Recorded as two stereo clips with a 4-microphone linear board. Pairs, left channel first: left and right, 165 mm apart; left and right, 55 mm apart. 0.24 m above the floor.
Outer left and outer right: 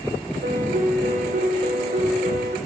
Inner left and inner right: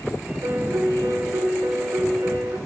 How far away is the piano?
About 9.5 m.